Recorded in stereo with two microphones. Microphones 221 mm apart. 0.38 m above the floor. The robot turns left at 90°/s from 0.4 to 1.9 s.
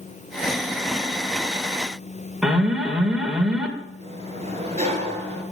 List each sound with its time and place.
2.4 s an alarm: 5° right (ahead or behind), 1.8 m
4.0 s a sliding door: 30° right (ahead or behind), 5.5 m